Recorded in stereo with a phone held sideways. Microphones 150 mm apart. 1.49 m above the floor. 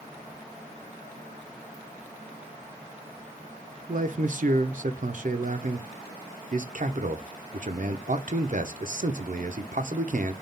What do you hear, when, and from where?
3.9 s a man speaking: 60° right (ahead or behind), 0.6 m